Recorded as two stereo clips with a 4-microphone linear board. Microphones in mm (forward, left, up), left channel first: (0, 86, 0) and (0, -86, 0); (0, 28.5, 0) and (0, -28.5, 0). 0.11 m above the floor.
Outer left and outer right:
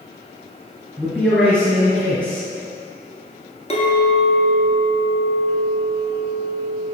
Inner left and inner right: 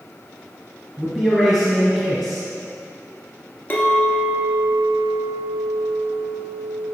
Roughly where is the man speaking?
Centre.